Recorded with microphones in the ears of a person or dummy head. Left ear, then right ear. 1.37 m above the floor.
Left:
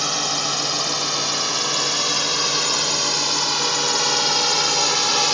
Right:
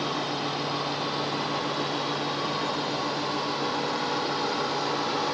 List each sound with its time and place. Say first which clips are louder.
0.0 s a drone: left 7 dB; 70° left (ahead or behind); by 5.3 s 75° left (ahead or behind)